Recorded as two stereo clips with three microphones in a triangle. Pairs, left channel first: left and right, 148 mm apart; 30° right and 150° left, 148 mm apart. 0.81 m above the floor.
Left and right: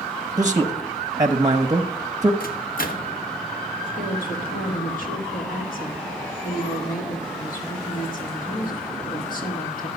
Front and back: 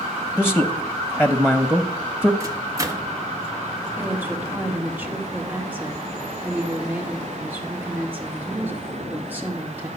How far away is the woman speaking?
About 2 m.